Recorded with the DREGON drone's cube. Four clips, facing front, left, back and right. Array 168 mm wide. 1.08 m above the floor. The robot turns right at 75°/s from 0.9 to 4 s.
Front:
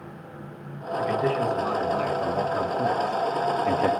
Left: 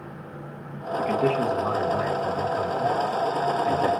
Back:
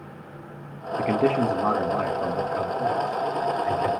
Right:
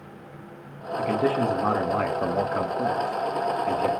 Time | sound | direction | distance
1.0 | a man speaking | 175° left | 1.6 m